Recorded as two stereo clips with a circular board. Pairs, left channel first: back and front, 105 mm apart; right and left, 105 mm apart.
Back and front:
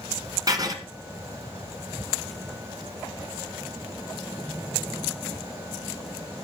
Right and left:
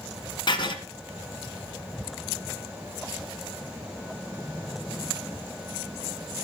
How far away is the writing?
About 1.5 m.